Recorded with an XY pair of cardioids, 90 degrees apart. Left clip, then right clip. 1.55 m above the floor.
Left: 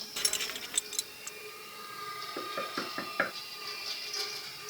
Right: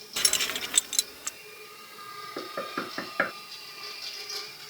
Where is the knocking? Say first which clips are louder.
Right 3 dB; 30° right.